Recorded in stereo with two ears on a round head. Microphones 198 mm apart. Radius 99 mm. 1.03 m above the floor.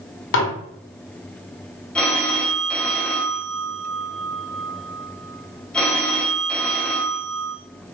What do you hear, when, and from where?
0.3 s dishes clattering: 65° left (ahead or behind), 1.7 m
1.9 s a phone ringing: 5° left (ahead or behind), 1.2 m